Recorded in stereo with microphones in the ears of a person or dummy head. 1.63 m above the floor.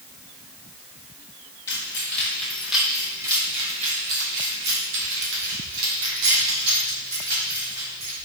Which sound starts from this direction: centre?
Keys jangling, at 1.7 s.